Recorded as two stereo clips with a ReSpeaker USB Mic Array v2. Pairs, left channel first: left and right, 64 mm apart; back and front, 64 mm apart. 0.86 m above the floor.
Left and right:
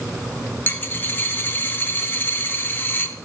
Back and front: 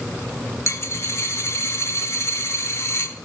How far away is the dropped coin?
About 0.8 m.